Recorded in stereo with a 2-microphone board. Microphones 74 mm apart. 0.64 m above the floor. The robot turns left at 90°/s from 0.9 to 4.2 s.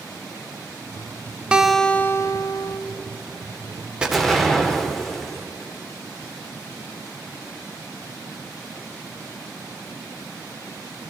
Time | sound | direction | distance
1.5 | a guitar | 165° right | 0.7 m
4.0 | an explosion | 15° right (ahead or behind) | 2.0 m